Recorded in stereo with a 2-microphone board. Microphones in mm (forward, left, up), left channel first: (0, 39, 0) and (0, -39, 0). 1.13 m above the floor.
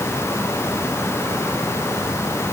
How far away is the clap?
I don't hear a clap.